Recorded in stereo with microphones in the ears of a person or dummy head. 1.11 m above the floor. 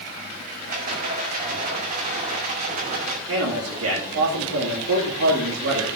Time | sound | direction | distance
0.7 | a rattle | 45° right (ahead or behind) | 2.5 m
3.3 | a man speaking | 75° right (ahead or behind) | 2.5 m